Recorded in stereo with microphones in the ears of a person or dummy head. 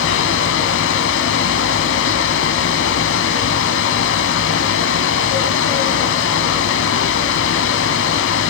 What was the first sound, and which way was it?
A fan, 65° left (ahead or behind).